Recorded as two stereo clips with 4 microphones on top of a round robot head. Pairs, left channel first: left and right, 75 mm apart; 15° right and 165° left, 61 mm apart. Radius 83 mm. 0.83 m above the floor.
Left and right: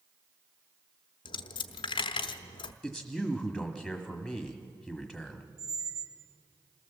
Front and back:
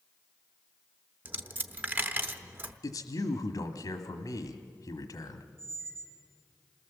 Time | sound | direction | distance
1.2 | a dropped coin | 105° left | 0.8 m
2.8 | a man speaking | 5° right | 1.4 m
5.6 | a squeak | 130° right | 1.4 m